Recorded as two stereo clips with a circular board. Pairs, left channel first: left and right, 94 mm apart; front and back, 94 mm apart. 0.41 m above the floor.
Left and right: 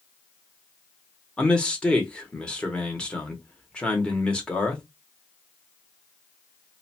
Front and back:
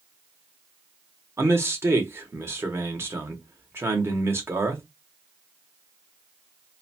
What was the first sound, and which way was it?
A man speaking, 155° left.